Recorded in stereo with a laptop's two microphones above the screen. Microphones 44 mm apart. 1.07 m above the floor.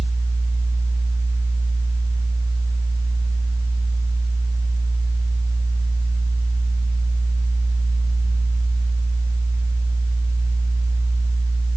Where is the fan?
75° right (ahead or behind), 1.2 m.